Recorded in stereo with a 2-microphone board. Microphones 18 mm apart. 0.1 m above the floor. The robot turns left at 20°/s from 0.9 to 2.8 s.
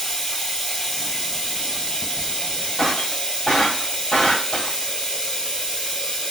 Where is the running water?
150° left, 1.0 m; by 6.3 s 115° left, 1.0 m.